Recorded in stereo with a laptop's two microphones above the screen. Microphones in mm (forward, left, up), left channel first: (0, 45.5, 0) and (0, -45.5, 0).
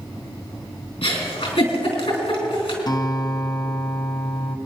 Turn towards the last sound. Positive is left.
turn(degrees=45)  # may be behind; listen again after turning